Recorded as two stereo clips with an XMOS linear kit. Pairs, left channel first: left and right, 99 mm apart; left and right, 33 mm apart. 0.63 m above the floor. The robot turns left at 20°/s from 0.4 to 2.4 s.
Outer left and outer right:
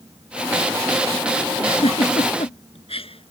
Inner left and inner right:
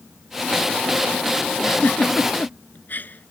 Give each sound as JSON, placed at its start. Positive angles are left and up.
{"t": 1.6, "sound": "a giggle", "side_deg": 80}